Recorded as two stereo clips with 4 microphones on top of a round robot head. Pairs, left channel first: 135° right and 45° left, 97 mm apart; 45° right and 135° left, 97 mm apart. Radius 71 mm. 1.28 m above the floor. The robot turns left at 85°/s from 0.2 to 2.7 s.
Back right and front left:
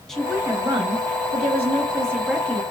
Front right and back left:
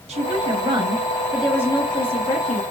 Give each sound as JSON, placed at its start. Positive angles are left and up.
{"t": 0.1, "sound": "a woman speaking", "azimuth_deg": 140, "distance_m": 1.1}